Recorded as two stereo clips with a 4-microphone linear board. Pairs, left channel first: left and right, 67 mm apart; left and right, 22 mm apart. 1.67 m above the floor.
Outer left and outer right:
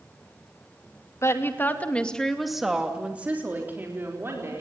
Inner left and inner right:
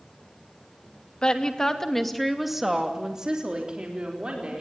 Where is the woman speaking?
45° left (ahead or behind), 2.5 m; by 4.6 s 40° right (ahead or behind), 5 m.